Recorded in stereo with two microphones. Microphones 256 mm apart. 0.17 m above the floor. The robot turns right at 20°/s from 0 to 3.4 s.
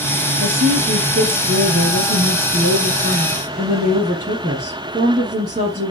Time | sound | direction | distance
0.4 | a woman speaking | 105° right | 1.8 m